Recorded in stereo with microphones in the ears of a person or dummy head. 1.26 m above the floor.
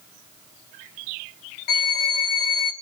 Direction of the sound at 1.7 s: 45° left (ahead or behind).